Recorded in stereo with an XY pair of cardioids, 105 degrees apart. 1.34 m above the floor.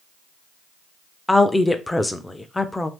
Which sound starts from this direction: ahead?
A woman speaking, at 1.3 s.